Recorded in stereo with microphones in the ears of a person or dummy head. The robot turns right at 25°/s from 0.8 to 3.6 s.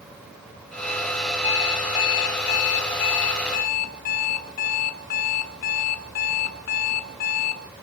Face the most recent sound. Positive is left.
turn(degrees=80)